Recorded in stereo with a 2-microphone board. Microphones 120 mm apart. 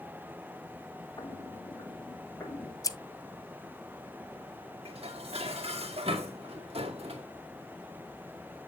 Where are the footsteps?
45° left (ahead or behind), 4.5 m; by 2.7 s 25° left (ahead or behind), 3 m.